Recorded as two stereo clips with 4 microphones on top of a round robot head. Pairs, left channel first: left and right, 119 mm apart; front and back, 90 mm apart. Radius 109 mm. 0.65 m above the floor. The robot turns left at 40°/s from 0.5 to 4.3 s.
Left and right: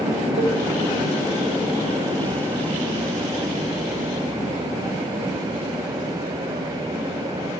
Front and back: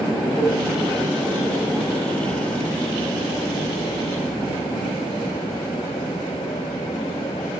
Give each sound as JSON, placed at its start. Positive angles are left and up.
{"t": 0.4, "sound": "a cowbell", "azimuth_deg": -55, "distance_m": 0.7}